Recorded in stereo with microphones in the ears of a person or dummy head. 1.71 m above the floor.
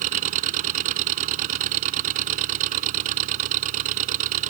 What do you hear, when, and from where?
0.0 s an engine running: 45° right (ahead or behind)